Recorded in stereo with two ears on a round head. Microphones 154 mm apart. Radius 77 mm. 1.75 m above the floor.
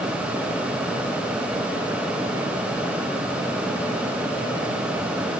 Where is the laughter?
No laughter in this recording.